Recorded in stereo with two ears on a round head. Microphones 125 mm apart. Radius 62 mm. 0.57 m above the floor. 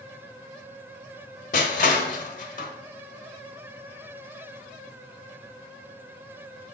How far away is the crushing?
About 1.3 m.